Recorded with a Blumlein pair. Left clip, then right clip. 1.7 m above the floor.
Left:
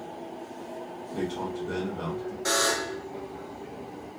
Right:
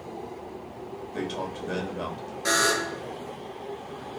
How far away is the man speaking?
About 1.7 m.